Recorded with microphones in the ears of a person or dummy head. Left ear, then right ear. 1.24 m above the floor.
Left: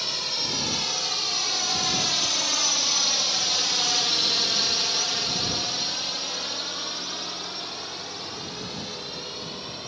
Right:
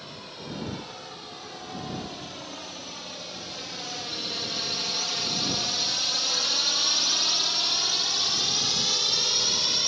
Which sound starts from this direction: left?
A drone, at 0.0 s.